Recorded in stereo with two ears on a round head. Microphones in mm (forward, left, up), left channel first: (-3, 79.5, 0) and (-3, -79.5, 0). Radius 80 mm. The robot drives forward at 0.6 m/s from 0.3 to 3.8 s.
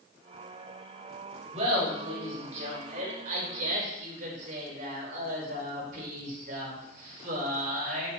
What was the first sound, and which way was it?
Laughter, 35° right (ahead or behind).